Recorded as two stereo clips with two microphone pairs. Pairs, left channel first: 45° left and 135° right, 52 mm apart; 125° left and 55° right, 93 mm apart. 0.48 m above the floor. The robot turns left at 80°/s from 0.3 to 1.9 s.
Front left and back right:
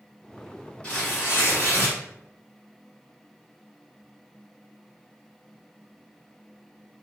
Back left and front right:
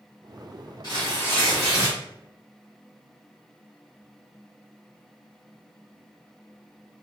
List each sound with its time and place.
0.8 s tearing paper: 100° left, 1.4 m; by 2.0 s 20° left, 1.4 m